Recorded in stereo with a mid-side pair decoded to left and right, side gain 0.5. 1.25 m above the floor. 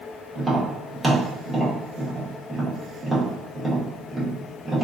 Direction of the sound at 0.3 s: 20° right.